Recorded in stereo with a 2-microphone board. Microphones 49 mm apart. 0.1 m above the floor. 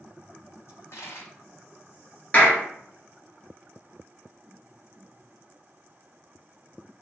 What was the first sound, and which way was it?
A dropped coin, 60° left (ahead or behind).